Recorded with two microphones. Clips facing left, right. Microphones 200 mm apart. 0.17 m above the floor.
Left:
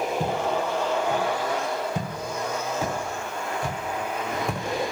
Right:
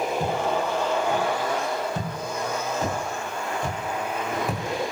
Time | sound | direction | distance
0.2 | footsteps | 20° left (ahead or behind) | 8 m